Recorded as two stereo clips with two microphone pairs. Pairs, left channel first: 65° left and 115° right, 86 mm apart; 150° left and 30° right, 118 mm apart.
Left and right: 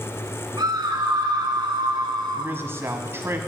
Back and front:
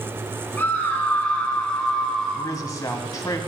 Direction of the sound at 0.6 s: 140° right.